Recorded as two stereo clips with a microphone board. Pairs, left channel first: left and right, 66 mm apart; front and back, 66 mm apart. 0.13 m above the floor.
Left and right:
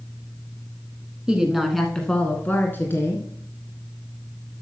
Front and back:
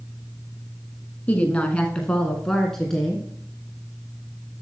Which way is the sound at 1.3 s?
30° right.